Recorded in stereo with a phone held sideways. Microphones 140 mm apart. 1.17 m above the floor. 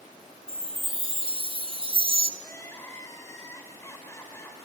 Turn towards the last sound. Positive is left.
turn(degrees=20)  # may be behind; listen again after turning